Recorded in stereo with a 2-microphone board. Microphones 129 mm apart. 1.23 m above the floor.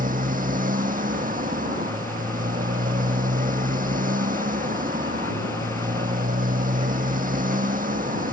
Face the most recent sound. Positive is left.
turn(degrees=-85)